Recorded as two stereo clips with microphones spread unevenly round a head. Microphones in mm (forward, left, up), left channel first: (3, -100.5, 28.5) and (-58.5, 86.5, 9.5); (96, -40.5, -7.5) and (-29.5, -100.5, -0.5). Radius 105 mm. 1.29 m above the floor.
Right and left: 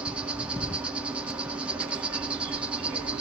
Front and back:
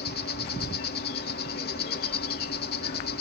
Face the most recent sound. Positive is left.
turn(degrees=20)